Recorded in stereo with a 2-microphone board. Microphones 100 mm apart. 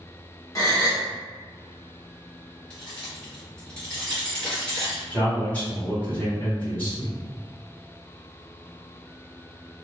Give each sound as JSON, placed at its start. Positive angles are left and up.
{"t": 0.6, "sound": "a gasp", "side_deg": 35, "distance_m": 1.0}
{"t": 2.7, "sound": "keys jangling", "side_deg": 10, "distance_m": 1.5}
{"t": 5.1, "sound": "a man speaking", "side_deg": 20, "distance_m": 1.9}